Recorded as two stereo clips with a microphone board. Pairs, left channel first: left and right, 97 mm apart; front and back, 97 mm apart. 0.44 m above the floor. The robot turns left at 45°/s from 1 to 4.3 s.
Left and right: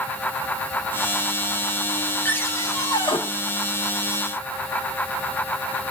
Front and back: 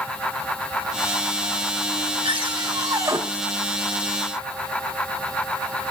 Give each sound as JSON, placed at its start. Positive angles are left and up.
{"t": 2.2, "sound": "a cupboard door", "azimuth_deg": 160, "distance_m": 4.0}